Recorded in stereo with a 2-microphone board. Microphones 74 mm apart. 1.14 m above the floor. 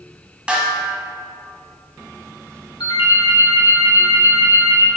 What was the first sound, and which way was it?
A snare drum, 10° right (ahead or behind).